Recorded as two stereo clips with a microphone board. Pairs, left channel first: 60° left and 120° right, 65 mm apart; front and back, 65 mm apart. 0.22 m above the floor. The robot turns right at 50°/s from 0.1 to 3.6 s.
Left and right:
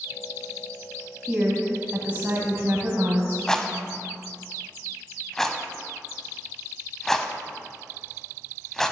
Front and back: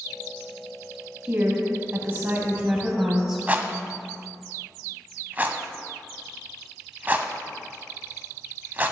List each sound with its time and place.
1.3 s a woman speaking: 155° left, 1.2 m; by 3.4 s 100° right, 1.2 m
3.5 s a rattle: 130° left, 0.5 m; by 8.9 s 140° left, 0.5 m